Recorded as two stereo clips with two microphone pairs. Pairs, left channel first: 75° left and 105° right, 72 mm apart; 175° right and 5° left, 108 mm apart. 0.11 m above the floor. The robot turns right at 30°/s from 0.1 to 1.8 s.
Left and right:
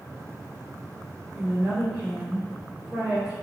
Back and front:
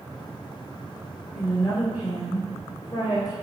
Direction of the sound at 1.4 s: 175° left.